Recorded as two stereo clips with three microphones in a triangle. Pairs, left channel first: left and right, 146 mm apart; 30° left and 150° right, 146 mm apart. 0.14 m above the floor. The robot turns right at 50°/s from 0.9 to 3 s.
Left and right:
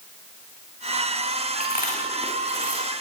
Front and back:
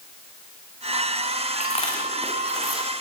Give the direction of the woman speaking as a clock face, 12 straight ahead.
No woman speaking in this recording.